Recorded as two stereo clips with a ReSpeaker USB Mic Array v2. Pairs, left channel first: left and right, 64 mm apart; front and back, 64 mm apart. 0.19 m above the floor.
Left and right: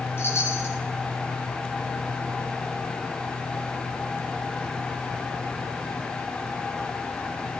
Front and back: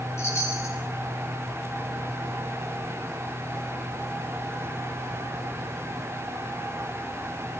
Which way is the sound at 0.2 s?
40° left.